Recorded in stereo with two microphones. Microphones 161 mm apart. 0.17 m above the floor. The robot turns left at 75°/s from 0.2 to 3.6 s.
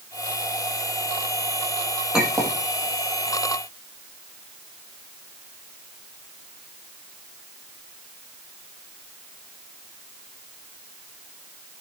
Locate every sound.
2.1 s a clink: 5° right (ahead or behind), 5 m; by 2.6 s 35° right (ahead or behind), 5 m